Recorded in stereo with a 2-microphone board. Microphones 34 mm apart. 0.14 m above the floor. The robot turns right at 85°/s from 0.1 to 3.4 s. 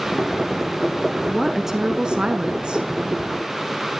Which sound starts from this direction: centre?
A woman speaking, at 1.3 s.